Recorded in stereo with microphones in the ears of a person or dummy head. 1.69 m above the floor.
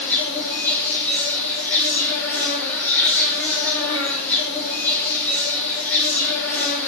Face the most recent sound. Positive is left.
turn(degrees=10)  # may be behind; listen again after turning